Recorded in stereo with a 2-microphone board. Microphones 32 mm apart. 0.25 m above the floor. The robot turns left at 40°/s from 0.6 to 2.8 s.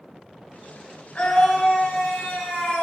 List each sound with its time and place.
1.1 s a scream: 135° left, 3 m; by 2.8 s 70° left, 3 m